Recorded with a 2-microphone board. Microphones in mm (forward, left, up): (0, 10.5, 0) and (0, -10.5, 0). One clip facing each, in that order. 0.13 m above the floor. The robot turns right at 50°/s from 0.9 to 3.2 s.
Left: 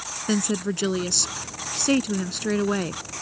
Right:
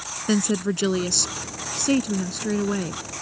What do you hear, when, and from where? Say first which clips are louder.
0.3 s a woman speaking: right 2 dB; 5° right (ahead or behind); by 3.0 s 20° left (ahead or behind)